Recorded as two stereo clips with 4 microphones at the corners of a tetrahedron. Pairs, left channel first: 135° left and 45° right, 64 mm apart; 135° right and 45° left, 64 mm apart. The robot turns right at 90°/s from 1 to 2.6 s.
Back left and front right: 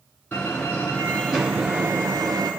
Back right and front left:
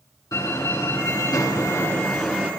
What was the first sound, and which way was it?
A door slam, 155° right.